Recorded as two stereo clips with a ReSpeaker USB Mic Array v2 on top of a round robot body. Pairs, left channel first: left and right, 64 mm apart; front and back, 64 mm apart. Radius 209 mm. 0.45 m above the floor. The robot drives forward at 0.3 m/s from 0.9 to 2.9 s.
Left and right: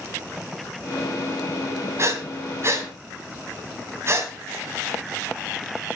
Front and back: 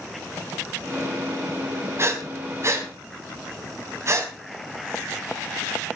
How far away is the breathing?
About 3.5 m.